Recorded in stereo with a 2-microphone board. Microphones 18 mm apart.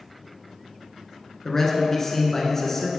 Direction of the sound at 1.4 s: 20° left (ahead or behind).